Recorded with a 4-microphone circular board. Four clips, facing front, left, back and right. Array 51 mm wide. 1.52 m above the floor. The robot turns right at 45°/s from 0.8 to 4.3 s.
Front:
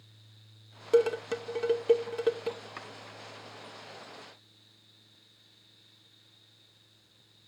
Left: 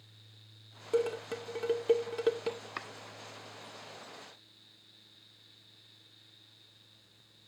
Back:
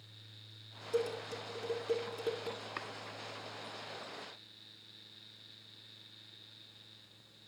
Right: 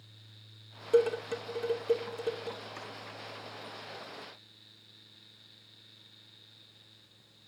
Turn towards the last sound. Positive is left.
turn(degrees=180)